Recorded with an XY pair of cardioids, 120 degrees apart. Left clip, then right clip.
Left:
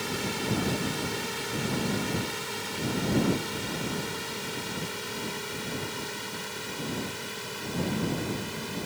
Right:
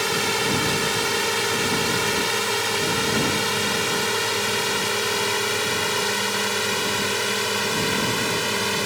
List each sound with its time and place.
0.0 s a drone: 55° right; by 8.9 s 70° right